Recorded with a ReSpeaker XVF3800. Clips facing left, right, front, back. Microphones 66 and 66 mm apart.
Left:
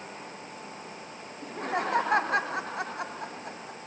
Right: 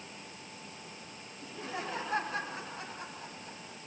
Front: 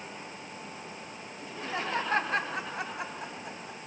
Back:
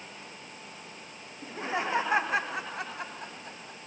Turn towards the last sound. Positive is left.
turn(degrees=80)